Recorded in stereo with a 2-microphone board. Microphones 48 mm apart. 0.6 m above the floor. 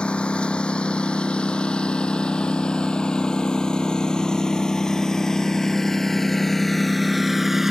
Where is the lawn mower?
20° left (ahead or behind); by 7.7 s 10° right (ahead or behind).